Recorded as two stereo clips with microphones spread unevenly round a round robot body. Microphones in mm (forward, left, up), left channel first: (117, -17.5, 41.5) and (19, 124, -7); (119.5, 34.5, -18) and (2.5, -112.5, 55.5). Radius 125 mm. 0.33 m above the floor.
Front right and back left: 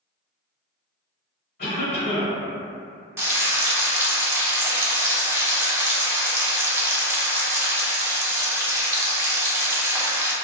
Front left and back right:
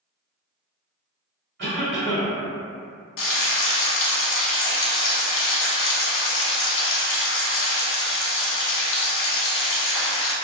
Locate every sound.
1.6 s a cough: 105° right, 1.8 m
3.2 s frying: 45° left, 0.7 m